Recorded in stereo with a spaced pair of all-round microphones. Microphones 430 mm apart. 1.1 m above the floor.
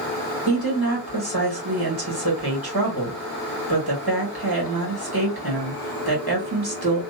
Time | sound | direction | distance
0.5 | a woman speaking | 60° right (ahead or behind) | 1.3 m